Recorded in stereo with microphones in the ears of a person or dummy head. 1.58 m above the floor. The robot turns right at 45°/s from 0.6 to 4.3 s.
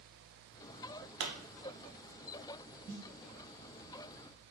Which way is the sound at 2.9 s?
15° right (ahead or behind).